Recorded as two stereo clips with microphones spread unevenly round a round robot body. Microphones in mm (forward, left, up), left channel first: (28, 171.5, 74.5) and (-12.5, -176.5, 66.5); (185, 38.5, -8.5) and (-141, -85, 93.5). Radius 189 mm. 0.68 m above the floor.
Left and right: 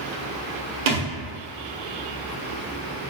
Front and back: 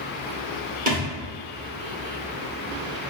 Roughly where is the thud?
Right.